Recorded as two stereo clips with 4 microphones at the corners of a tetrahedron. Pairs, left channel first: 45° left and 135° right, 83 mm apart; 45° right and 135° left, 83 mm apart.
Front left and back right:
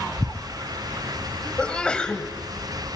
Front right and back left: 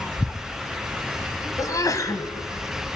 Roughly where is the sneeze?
Ahead right.